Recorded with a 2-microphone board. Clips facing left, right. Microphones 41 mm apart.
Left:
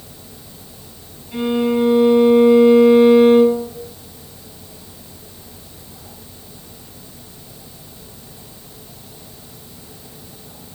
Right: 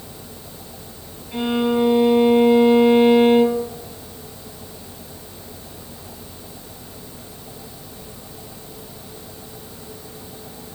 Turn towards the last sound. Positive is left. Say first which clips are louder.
# left 2 dB
turn(degrees=10)  # may be behind; listen again after turning